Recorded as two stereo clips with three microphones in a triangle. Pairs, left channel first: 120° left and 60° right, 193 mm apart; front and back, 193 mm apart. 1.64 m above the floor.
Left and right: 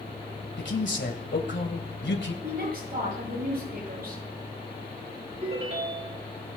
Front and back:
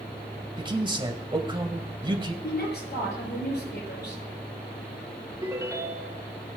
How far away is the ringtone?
About 2.5 m.